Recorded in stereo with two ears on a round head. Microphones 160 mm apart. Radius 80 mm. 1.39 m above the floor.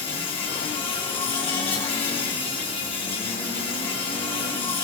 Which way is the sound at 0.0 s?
30° left (ahead or behind).